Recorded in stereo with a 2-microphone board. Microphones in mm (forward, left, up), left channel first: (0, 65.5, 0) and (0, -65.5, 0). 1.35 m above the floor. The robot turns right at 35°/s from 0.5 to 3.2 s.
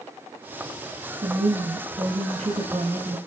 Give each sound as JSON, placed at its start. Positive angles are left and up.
{"t": 1.2, "sound": "a woman speaking", "azimuth_deg": -105, "distance_m": 1.8}